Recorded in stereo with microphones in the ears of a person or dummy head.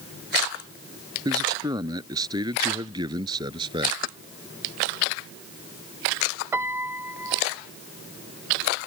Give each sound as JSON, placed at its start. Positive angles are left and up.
{"t": 1.2, "sound": "a man speaking", "side_deg": -20}
{"t": 4.0, "sound": "keys jangling", "side_deg": 50}
{"t": 6.5, "sound": "a piano", "side_deg": -10}